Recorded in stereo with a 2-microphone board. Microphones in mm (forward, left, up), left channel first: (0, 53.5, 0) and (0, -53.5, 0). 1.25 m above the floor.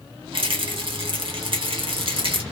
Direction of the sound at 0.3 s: 60° right (ahead or behind).